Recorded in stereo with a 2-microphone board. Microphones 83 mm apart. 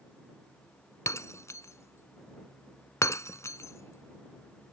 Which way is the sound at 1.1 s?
35° left (ahead or behind).